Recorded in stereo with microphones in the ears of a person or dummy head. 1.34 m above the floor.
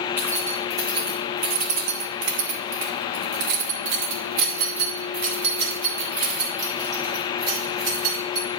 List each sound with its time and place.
0.2 s keys jangling: 15° right (ahead or behind), 1.5 m; by 8.5 s 50° right (ahead or behind), 4 m